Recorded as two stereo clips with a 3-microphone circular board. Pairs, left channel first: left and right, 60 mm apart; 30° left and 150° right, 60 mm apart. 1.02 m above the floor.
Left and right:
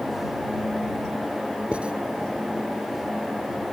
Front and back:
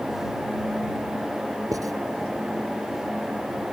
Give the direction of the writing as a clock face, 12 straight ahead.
5 o'clock.